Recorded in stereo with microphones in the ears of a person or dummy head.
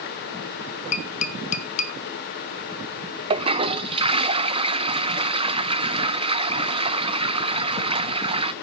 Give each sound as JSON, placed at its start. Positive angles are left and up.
{"t": 0.9, "sound": "tapping", "side_deg": 50, "distance_m": 1.5}
{"t": 3.3, "sound": "a toilet flushing", "side_deg": -35, "distance_m": 0.5}